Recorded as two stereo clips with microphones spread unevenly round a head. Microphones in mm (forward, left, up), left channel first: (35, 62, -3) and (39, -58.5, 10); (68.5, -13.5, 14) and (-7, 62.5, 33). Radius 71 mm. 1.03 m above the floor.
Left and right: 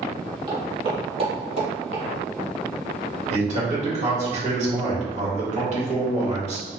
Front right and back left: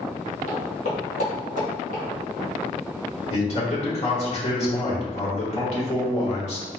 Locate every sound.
0.5 s footsteps: 50° right, 1.7 m; by 2.0 s 85° right, 1.7 m
3.3 s a man speaking: 60° right, 1.8 m